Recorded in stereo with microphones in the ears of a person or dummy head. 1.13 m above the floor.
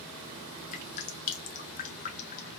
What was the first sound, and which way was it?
Dripping, 35° left (ahead or behind).